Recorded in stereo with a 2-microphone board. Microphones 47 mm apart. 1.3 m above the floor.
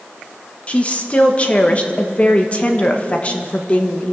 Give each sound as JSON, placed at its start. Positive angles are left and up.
{"t": 0.7, "sound": "a woman speaking", "side_deg": 30, "distance_m": 1.5}